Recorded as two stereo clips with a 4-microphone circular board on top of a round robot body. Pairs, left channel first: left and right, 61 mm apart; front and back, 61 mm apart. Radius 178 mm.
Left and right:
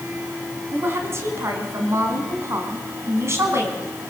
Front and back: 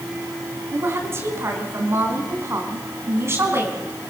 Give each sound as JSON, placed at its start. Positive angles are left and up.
{"t": 0.7, "sound": "a woman speaking", "azimuth_deg": -135, "distance_m": 4.0}